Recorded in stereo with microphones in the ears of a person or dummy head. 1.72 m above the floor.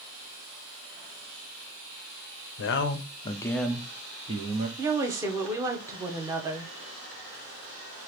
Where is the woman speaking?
20° right (ahead or behind), 0.7 m.